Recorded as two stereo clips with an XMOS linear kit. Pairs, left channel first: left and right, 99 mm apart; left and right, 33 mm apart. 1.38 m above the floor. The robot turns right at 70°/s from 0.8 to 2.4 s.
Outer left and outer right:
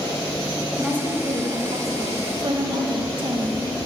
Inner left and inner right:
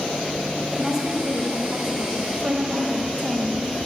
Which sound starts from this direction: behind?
A woman speaking, at 0.7 s.